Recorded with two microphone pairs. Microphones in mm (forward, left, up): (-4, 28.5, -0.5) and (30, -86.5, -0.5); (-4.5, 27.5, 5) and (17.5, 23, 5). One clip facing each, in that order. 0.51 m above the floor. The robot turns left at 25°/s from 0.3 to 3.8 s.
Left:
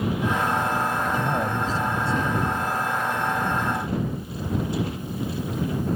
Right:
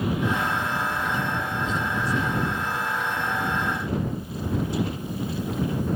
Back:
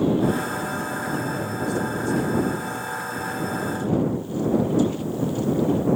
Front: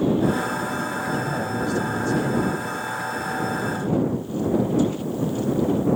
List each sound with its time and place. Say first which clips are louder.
1.1 s a man speaking: left 3 dB, front 2 dB; 70° left; by 2.6 s 35° left